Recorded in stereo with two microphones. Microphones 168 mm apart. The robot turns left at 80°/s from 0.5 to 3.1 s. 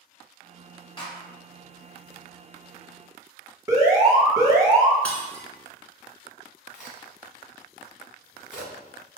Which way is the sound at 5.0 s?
5° left (ahead or behind).